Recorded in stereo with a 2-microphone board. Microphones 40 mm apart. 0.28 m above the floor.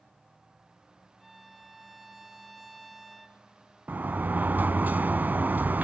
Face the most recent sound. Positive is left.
turn(degrees=-45)  # may be behind; listen again after turning